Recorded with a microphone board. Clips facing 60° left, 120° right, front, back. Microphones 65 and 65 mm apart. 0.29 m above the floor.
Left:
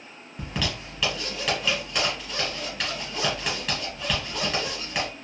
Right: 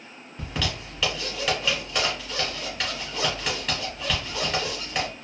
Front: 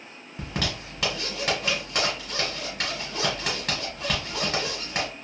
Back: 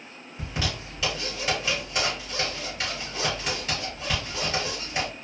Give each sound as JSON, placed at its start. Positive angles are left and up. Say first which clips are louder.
{"t": 0.4, "sound": "a zipper", "louder": "even, front 1 dB", "azimuth_deg": -30, "distance_m": 3.0}